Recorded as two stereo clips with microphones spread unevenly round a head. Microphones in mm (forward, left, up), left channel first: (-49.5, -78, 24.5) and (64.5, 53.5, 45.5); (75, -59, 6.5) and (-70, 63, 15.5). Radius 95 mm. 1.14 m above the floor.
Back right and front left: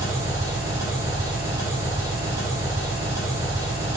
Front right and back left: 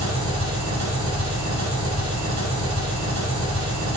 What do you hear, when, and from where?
0.0 s an engine running: 125° left, 3 m